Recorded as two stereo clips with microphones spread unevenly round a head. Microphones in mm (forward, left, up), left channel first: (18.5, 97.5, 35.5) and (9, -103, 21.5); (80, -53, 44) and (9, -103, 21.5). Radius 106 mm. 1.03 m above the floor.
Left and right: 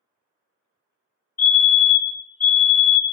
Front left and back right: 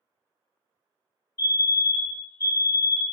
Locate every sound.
1.4 s a fire alarm: 10° left, 1.8 m